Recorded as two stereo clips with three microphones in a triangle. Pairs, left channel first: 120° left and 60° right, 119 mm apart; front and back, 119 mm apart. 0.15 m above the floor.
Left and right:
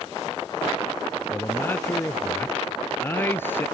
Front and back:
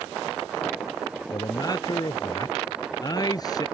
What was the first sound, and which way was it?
A man speaking, 50° left.